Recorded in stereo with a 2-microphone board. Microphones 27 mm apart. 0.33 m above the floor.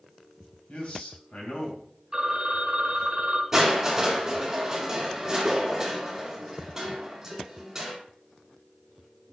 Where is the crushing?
10° right (ahead or behind), 3 m.